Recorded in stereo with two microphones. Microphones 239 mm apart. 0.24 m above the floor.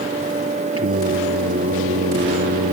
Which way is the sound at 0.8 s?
70° right (ahead or behind).